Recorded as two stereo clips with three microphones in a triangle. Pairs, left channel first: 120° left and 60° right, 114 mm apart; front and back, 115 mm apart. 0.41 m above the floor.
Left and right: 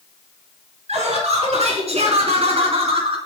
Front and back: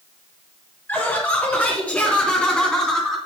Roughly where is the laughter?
Right.